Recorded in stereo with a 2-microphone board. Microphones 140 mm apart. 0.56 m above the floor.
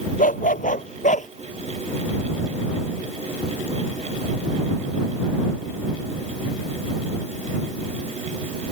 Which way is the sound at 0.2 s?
80° left.